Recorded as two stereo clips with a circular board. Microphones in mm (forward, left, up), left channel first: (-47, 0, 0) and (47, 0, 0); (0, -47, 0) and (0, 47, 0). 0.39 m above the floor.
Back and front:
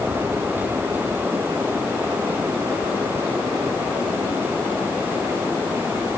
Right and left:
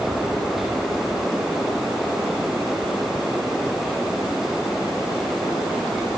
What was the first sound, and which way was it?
Only background noise.